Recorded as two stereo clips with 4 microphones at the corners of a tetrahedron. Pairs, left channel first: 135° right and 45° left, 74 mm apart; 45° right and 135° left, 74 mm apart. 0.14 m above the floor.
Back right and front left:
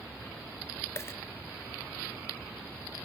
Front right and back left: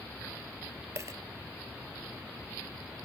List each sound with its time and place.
0.9 s a dropped coin: 175° left, 0.5 m